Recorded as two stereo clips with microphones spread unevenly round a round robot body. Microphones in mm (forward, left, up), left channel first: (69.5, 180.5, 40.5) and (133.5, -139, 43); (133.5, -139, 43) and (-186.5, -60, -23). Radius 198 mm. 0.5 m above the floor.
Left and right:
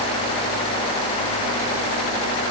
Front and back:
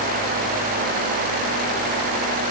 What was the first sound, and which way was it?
Only background noise.